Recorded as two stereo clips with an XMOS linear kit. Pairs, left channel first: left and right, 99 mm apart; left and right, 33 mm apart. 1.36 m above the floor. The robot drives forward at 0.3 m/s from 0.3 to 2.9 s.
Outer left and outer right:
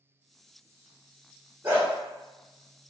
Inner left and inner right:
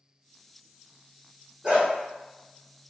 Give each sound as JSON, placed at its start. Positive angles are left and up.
{"t": 1.6, "sound": "a dog barking", "side_deg": -25, "distance_m": 1.4}